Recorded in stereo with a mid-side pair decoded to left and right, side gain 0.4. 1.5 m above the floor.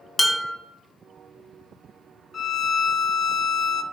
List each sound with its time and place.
0.2 s dishes clattering: 20° left, 1.9 m
2.3 s a violin: 50° left, 0.6 m